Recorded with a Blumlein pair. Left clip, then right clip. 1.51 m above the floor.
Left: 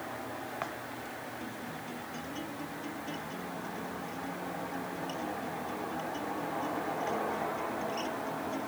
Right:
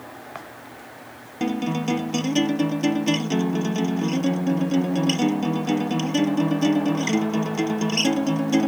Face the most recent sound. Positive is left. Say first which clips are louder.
# right 15 dB
turn(degrees=-50)